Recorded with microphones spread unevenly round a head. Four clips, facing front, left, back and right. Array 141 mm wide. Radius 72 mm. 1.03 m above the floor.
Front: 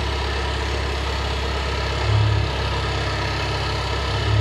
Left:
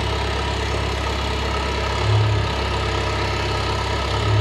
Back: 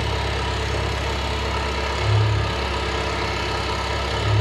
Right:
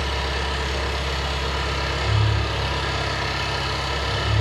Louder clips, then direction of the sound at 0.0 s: Left 3 dB, back 1 dB; 80° left.